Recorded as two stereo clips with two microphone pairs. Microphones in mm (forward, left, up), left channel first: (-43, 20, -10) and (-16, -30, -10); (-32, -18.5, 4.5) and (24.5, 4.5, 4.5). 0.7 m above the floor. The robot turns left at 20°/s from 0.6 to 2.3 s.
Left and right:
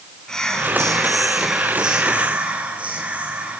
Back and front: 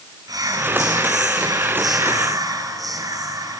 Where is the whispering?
40° left, 9 m; by 3.6 s 5° left, 9 m.